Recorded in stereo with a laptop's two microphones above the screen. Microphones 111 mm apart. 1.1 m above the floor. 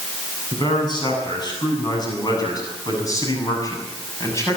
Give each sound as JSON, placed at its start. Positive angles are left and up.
{"t": 0.5, "sound": "a man speaking", "side_deg": 45, "distance_m": 8.5}